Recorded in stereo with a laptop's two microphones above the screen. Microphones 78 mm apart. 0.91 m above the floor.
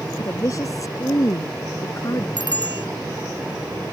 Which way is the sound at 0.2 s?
45° left (ahead or behind).